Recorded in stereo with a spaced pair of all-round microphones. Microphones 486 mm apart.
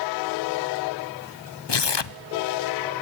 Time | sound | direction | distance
1.7 | tearing paper | 60° left (ahead or behind) | 0.7 m